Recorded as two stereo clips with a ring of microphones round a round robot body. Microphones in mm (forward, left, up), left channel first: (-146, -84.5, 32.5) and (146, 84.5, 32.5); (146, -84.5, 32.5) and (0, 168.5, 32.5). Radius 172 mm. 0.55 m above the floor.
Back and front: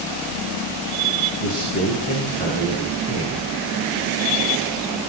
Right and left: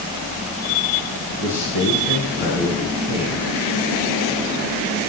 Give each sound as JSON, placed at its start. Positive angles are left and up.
{"t": 1.4, "sound": "a man speaking", "azimuth_deg": -85, "distance_m": 9.5}